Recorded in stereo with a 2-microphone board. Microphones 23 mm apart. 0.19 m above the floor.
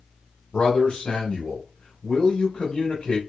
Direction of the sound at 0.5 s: 30° left (ahead or behind).